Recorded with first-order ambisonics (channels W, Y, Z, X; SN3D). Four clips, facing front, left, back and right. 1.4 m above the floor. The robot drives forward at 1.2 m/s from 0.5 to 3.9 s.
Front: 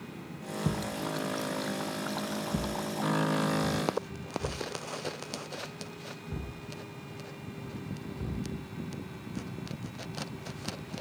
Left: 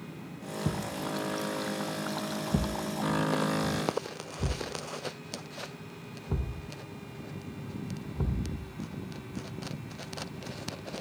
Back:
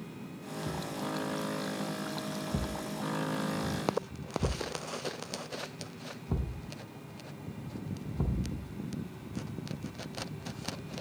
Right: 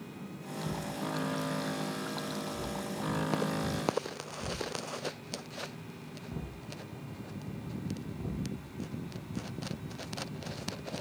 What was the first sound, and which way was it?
A thud, 40° left.